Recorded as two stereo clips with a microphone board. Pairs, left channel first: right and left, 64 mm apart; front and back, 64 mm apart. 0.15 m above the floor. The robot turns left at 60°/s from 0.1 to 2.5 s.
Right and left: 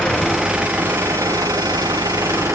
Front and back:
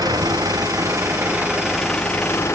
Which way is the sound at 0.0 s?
165° right.